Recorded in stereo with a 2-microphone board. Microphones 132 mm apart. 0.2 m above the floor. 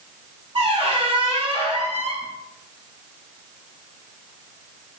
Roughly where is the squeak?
Right.